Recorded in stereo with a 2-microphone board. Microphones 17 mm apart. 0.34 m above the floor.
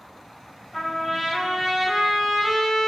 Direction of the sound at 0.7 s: 10° left (ahead or behind).